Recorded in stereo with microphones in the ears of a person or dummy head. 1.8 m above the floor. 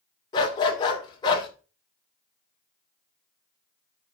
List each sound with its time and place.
0.3 s a dog barking: 25° left (ahead or behind), 2.5 m